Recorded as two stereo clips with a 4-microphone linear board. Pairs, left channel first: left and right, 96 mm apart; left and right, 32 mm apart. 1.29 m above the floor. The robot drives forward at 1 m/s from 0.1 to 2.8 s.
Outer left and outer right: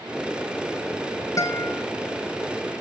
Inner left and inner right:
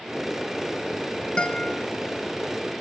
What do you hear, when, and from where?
1.4 s a guitar: 35° left (ahead or behind), 0.8 m; by 1.9 s 20° left (ahead or behind), 1.1 m